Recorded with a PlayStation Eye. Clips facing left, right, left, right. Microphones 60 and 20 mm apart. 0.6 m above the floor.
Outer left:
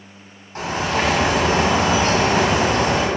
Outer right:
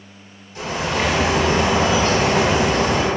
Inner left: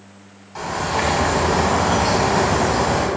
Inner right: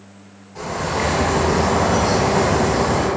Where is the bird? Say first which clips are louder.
Outer left 1 dB, inner left 1 dB; 50° left (ahead or behind), 1.1 m.